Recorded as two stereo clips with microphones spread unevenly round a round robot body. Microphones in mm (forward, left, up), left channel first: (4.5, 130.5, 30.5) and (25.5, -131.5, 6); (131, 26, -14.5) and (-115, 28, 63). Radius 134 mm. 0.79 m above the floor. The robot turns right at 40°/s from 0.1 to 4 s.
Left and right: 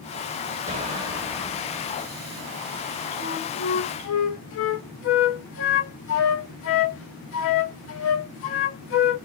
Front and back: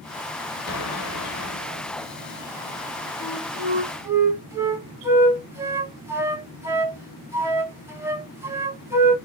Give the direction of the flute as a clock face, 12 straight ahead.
10 o'clock.